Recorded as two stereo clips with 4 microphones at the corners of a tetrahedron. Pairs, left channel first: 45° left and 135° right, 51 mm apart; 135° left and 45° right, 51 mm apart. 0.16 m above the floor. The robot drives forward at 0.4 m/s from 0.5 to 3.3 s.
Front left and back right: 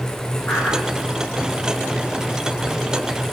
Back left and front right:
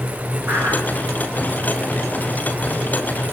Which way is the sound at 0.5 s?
5° right.